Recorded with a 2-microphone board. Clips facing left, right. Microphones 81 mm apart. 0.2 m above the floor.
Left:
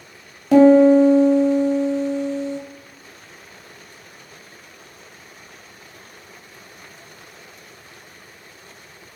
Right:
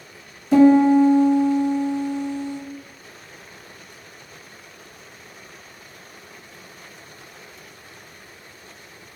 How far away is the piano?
About 0.8 m.